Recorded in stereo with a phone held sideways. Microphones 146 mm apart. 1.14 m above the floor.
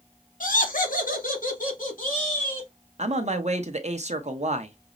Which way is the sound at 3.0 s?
50° right (ahead or behind).